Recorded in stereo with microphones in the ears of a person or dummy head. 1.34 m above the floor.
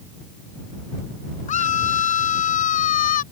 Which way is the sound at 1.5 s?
45° left (ahead or behind).